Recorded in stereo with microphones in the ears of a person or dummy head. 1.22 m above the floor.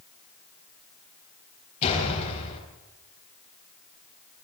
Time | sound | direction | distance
1.8 | a door slam | 35° left (ahead or behind) | 6 m